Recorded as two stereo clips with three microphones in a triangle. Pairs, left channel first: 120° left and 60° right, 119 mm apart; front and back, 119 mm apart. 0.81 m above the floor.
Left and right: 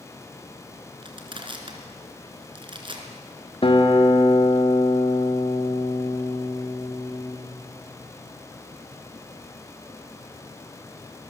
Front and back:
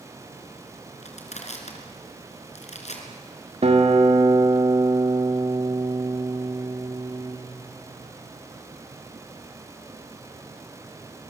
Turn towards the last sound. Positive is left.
turn(degrees=160)